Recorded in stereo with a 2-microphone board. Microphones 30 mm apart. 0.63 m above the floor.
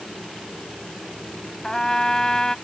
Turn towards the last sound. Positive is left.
turn(degrees=20)  # may be behind; listen again after turning